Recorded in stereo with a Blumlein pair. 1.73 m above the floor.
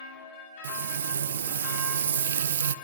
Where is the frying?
65° right, 0.6 m.